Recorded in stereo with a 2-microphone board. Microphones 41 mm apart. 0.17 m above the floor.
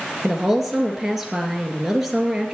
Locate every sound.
0.2 s a woman speaking: 5° right (ahead or behind), 2.5 m